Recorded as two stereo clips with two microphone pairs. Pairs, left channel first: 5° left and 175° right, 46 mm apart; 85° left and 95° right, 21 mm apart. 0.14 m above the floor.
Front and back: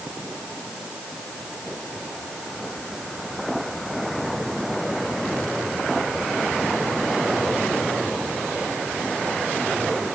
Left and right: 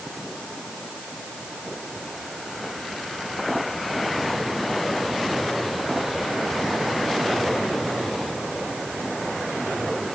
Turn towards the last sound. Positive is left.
No sound to turn to.